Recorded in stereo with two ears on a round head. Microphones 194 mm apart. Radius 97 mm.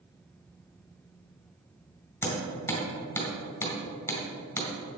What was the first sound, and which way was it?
Hammering, 10° left (ahead or behind).